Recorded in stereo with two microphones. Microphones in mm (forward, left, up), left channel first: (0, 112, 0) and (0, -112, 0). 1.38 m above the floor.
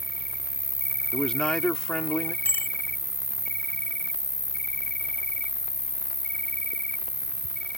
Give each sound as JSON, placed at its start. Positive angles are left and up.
{"t": 0.0, "sound": "an insect", "side_deg": 50}
{"t": 1.1, "sound": "a man speaking", "side_deg": 5}
{"t": 2.5, "sound": "a bicycle bell", "side_deg": 10}